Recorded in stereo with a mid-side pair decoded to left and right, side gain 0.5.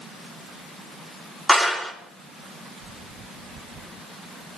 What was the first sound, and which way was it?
A clap, 15° left.